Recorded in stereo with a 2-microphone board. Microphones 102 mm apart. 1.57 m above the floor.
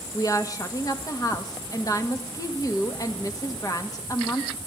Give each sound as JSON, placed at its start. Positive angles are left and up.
{"t": 0.1, "sound": "a woman speaking", "side_deg": 35, "distance_m": 2.0}